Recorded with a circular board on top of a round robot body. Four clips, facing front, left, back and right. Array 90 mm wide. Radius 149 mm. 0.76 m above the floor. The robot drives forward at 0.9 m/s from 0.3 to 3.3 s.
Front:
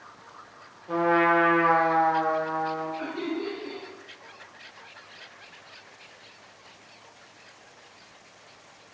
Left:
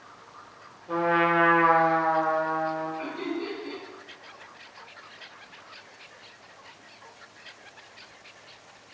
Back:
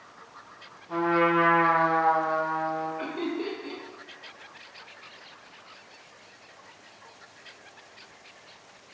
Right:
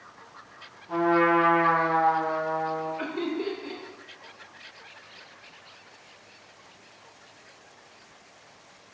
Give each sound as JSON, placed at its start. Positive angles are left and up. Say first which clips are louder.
{"t": 0.9, "sound": "a trumpet", "louder": "right 2 dB, front 2 dB", "azimuth_deg": 35, "distance_m": 0.7}
{"t": 3.0, "sound": "laughter", "louder": "right 2 dB, even", "azimuth_deg": -105, "distance_m": 0.7}